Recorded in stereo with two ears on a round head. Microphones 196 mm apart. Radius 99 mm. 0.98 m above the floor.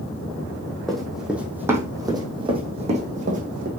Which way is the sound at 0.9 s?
5° left (ahead or behind).